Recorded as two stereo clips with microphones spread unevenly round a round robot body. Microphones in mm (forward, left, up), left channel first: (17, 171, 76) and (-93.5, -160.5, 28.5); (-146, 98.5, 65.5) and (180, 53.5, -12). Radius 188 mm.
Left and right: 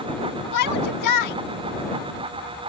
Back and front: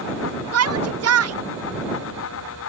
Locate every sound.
0.5 s a shout: 30° left